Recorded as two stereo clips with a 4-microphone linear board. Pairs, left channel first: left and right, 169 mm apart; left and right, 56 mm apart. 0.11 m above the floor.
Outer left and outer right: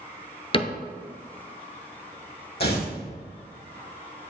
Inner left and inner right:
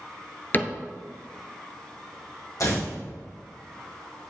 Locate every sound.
0.5 s a cupboard door: 35° left (ahead or behind), 0.7 m
2.6 s tearing paper: 70° left (ahead or behind), 3 m